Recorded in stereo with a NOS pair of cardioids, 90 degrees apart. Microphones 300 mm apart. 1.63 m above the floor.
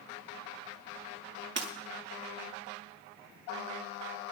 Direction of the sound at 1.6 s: 35° right.